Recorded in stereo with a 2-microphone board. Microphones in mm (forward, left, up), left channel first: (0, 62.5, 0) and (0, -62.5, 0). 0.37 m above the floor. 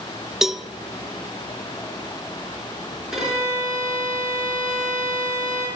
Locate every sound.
0.4 s a cowbell: 5° right (ahead or behind), 0.5 m
3.1 s a violin: 5° right (ahead or behind), 4 m